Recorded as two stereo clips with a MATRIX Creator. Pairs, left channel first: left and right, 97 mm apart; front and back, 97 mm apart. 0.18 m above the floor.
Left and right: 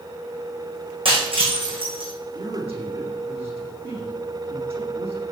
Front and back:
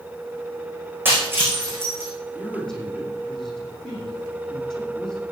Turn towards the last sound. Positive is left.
turn(degrees=-85)